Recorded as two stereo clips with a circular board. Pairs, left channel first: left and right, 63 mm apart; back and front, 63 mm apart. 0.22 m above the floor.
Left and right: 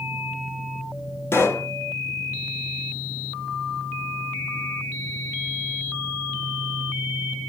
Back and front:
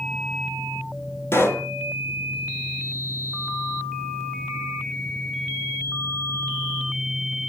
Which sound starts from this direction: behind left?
A pop, at 1.3 s.